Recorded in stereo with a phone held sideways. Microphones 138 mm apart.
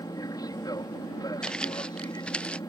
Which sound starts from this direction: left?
An aircraft, at 0.0 s.